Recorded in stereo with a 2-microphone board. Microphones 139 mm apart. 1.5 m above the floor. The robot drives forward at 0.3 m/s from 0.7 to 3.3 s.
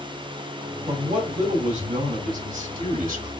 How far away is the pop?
No pop in this recording.